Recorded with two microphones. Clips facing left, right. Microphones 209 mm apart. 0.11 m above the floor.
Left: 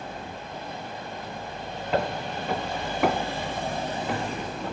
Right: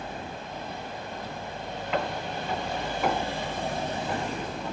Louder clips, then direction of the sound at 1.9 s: Left 3 dB; 40° left (ahead or behind).